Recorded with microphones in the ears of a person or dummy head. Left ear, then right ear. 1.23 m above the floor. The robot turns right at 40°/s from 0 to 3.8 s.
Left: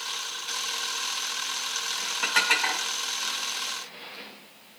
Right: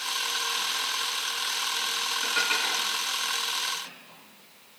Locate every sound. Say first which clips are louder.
2.2 s dishes clattering: left 5 dB; 55° left (ahead or behind), 2 m; by 2.9 s 30° left (ahead or behind), 2 m